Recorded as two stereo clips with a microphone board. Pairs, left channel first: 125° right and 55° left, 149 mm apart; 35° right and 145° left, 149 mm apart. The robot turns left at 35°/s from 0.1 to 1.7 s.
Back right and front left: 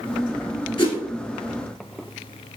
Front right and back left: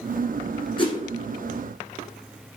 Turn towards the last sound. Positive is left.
turn(degrees=-105)